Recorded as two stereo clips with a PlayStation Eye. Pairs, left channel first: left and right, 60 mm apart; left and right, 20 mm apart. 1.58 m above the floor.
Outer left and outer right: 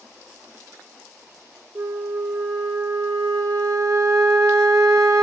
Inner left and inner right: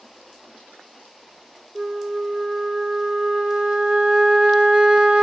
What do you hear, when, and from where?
1.8 s a flute: 60° right (ahead or behind), 0.6 m